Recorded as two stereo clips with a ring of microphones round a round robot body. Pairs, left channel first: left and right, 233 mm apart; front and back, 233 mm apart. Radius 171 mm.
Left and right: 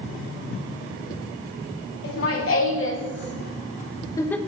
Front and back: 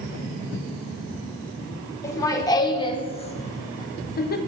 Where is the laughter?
75° left, 2 m; by 4.4 s 5° left, 1.0 m.